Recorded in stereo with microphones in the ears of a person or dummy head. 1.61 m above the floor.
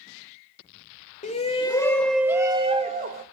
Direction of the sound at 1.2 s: 30° left (ahead or behind).